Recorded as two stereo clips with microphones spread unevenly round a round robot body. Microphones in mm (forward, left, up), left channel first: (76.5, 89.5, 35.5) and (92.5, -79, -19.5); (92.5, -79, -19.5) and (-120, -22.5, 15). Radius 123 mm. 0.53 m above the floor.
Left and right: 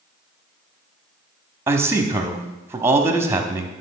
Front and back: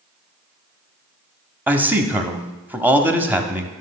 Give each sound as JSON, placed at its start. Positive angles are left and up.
{"t": 1.7, "sound": "a man speaking", "azimuth_deg": -105, "distance_m": 0.9}